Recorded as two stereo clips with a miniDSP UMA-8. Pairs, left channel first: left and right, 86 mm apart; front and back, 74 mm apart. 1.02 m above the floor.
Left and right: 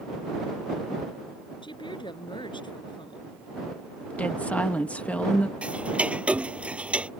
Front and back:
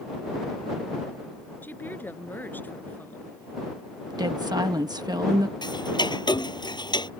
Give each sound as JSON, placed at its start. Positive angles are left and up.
{"t": 1.6, "sound": "a woman speaking", "azimuth_deg": 65}
{"t": 4.1, "sound": "a woman speaking", "azimuth_deg": 165}
{"t": 5.6, "sound": "ticking", "azimuth_deg": -15}